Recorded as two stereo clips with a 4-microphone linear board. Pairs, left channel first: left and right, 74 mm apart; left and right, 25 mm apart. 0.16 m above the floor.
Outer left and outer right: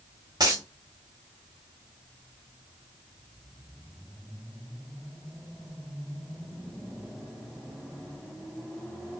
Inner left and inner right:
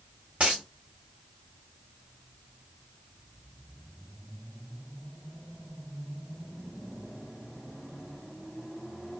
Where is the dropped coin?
65° right (ahead or behind), 1.2 m.